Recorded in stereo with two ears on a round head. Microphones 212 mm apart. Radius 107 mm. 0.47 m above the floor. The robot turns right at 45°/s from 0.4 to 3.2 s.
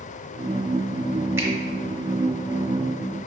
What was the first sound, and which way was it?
A finger snap, 10° right (ahead or behind).